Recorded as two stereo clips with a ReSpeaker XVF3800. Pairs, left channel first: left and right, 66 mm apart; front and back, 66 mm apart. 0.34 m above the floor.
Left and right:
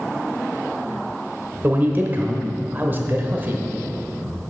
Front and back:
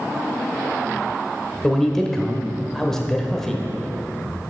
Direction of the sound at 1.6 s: 75° right.